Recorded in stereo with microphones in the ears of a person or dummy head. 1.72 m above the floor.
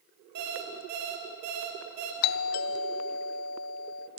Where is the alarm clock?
50° right (ahead or behind), 3 m.